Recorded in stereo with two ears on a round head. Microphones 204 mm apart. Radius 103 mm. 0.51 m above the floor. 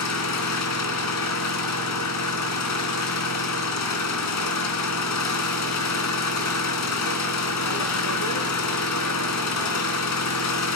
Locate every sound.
0.0 s an engine running: 85° left, 3 m